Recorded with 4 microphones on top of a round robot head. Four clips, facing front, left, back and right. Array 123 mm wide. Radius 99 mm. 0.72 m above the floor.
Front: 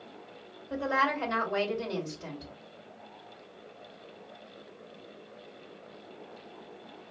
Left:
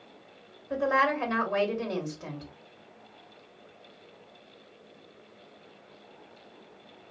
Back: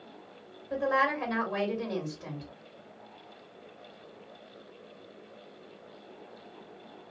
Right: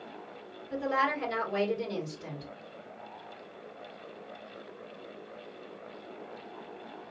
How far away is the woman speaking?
About 2.5 m.